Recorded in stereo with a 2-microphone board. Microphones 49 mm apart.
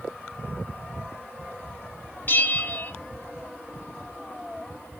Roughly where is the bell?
Left.